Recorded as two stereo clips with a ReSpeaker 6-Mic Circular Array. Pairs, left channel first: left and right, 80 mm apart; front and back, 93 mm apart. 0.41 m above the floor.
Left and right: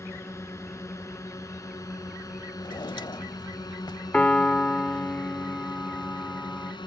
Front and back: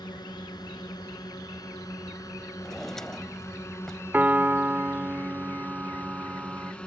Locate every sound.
0.0 s a drone: 35° left; by 6.9 s 80° left
2.6 s a drawer: 85° left
4.1 s a piano: 145° left